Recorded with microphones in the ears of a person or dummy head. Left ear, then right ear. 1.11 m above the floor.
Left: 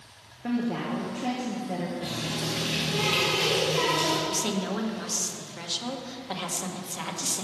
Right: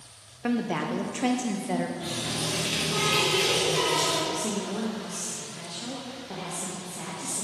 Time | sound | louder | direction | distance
0.4 | a woman speaking | right 2 dB | 55° right (ahead or behind) | 0.6 m
2.0 | a running tap | right 1 dB | 15° right (ahead or behind) | 1.8 m
4.3 | a woman speaking | left 1 dB | 50° left (ahead or behind) | 1.0 m